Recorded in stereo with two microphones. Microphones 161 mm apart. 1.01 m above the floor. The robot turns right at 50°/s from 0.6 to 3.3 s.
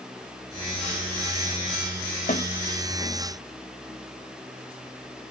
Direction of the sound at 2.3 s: 55° left (ahead or behind).